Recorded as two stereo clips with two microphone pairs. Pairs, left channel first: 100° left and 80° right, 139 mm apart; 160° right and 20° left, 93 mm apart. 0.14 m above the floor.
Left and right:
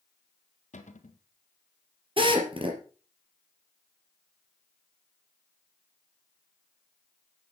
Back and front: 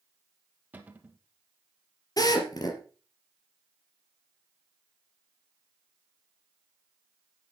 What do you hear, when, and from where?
0.7 s a cupboard door: 90° left, 1.8 m
2.2 s a drill: 120° right, 3.5 m